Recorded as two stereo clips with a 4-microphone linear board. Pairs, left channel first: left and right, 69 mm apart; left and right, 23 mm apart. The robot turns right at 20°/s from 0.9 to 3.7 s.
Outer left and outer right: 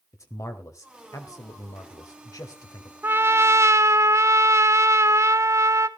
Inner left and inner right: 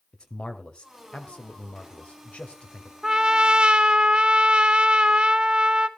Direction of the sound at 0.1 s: 60° left.